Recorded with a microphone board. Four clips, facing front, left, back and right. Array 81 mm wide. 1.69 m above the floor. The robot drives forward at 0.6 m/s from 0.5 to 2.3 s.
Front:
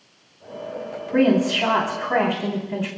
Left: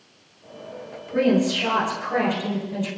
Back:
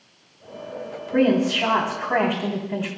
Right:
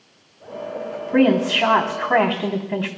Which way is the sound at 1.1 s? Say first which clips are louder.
Right 3 dB, front 1 dB; 80° right.